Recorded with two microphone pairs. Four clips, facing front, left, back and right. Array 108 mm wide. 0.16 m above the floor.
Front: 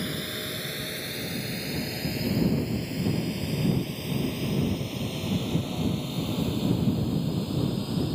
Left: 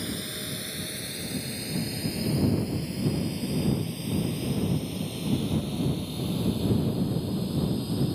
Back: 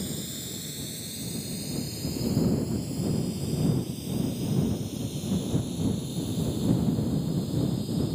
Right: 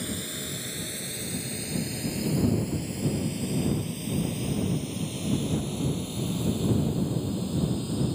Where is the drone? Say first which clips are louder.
Even, front 3 dB; 5° left; by 8.2 s straight ahead.